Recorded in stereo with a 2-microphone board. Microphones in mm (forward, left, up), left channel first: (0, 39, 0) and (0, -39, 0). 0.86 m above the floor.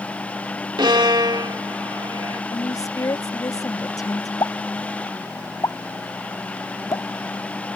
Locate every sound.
0.8 s a violin: 80° right
2.5 s a woman speaking: 55° left (ahead or behind)
4.4 s a pop: 55° left (ahead or behind)